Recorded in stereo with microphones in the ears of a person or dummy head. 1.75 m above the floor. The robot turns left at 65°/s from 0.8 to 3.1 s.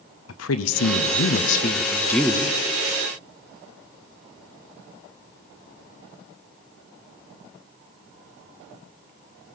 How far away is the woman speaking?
About 0.8 m.